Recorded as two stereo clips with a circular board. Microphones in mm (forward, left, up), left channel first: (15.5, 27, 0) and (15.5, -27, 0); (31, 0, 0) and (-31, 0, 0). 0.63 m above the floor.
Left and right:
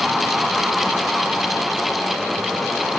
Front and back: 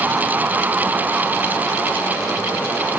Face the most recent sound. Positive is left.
No sound to turn to.